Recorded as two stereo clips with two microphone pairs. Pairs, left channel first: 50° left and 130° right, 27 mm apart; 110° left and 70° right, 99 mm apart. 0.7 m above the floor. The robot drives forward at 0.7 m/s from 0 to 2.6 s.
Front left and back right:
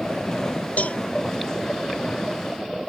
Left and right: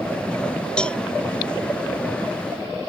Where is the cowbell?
30° left; by 1.0 s 35° left.